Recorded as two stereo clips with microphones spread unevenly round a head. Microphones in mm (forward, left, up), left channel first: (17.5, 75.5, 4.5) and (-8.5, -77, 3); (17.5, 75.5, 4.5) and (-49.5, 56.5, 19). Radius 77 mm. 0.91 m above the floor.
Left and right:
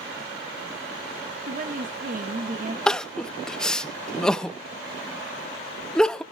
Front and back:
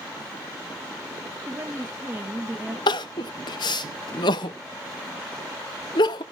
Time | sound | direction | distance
1.5 | a woman speaking | 95° right | 1.2 m
2.9 | crying | 5° right | 0.5 m